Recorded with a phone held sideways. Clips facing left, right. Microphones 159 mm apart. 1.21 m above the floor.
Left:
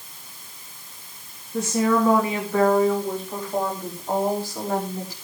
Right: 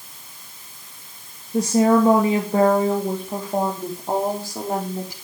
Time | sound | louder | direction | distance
1.5 | a woman speaking | right 5 dB | 35° right (ahead or behind) | 2 m